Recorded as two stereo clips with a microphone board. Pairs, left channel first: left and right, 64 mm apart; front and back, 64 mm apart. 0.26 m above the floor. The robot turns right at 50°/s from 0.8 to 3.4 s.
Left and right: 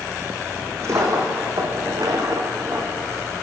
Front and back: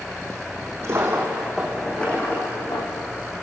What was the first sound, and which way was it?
A dropped coin, 135° right.